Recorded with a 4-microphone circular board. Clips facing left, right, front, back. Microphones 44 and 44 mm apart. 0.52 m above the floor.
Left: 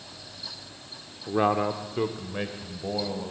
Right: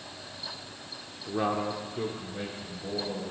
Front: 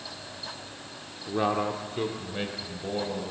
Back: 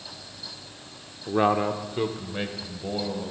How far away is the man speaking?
About 1.1 m.